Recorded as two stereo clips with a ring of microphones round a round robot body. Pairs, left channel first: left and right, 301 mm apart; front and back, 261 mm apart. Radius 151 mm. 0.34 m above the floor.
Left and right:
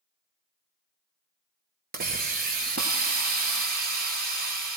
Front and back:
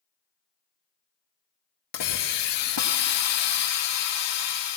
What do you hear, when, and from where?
1.9 s a hiss: 30° right, 1.2 m